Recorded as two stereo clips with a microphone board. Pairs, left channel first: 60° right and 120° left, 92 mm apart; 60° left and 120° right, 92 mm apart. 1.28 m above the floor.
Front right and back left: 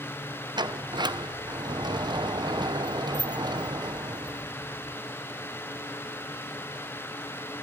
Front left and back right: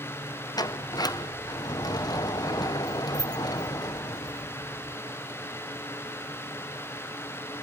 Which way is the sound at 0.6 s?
95° left.